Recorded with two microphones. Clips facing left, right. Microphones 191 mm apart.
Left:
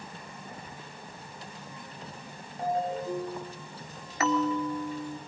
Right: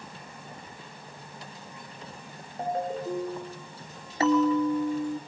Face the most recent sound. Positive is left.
turn(degrees=-30)  # may be behind; listen again after turning